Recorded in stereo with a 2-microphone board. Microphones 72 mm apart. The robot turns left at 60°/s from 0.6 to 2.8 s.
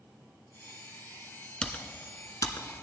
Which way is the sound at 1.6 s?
15° left (ahead or behind).